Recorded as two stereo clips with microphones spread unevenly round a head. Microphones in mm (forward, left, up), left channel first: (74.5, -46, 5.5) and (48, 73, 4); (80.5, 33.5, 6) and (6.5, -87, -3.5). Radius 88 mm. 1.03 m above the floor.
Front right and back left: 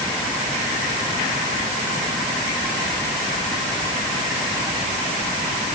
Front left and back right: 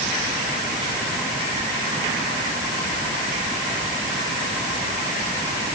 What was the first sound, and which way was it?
Only background noise.